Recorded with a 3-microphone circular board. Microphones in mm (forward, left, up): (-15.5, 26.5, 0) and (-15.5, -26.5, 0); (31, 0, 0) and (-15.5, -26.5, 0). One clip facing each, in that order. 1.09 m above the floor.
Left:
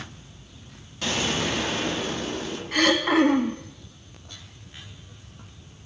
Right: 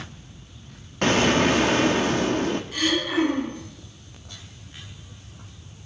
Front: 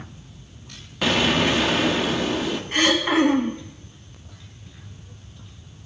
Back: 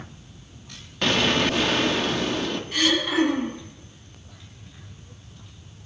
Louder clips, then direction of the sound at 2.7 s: Left 7 dB, front 3 dB; 80° left.